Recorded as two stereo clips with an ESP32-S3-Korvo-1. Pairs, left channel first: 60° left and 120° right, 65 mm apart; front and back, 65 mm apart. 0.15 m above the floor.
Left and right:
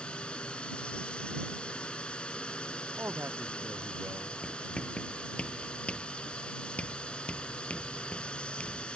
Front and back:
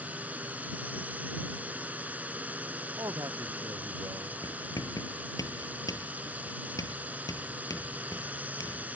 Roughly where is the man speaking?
Behind.